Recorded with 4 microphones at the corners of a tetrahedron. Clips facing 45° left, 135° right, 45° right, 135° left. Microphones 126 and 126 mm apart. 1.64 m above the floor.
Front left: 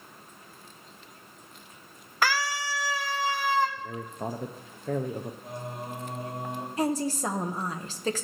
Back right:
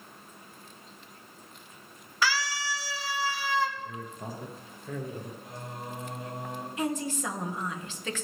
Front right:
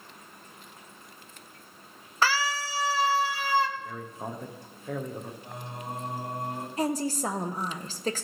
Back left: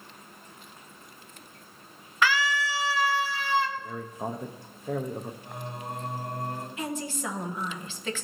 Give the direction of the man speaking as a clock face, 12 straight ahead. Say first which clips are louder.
Front left 4 dB, back left 3 dB; 10 o'clock.